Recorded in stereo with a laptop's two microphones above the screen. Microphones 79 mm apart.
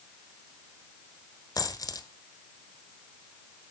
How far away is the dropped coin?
About 1.2 m.